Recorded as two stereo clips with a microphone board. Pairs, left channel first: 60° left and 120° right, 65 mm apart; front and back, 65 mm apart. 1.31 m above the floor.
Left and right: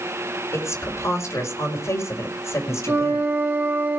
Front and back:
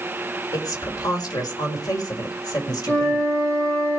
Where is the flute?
65° right, 4 m.